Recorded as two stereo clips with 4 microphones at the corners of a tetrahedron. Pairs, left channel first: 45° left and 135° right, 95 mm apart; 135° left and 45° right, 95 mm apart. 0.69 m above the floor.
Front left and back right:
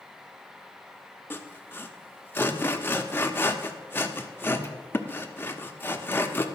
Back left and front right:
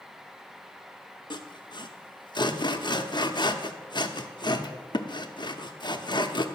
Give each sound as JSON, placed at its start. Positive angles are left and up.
{"t": 1.3, "sound": "sawing", "azimuth_deg": 110, "distance_m": 0.7}